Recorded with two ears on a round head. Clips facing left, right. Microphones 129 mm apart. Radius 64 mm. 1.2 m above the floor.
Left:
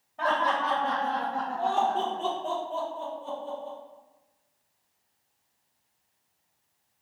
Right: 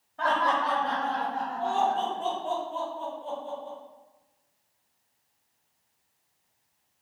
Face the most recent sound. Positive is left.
turn(degrees=50)  # may be behind; listen again after turning